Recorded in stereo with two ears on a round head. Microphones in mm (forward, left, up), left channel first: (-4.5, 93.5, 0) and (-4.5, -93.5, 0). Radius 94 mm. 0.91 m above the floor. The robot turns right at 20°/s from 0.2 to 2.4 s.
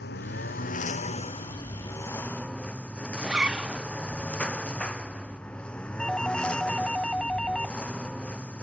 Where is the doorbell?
Centre (ahead or behind).